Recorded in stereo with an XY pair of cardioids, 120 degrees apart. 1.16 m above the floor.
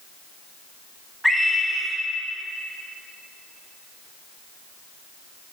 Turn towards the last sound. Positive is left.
turn(degrees=0)